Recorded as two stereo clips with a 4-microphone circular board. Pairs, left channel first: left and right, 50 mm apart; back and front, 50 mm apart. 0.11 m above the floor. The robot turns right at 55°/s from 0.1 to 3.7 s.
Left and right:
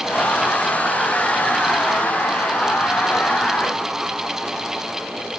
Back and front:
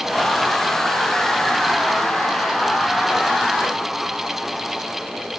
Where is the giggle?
I don't hear a giggle.